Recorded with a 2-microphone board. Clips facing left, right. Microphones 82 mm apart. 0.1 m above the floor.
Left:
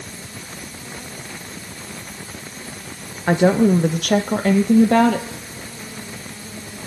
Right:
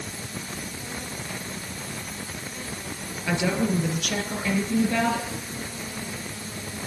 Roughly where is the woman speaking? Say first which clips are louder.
Left 10 dB; left.